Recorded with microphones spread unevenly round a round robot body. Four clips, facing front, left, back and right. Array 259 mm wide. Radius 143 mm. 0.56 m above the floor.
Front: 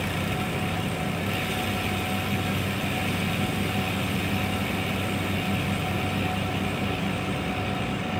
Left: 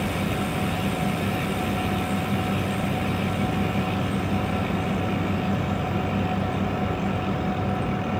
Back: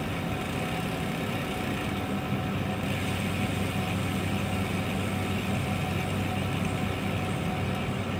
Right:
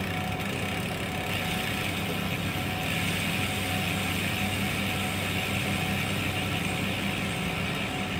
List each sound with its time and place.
Only background noise.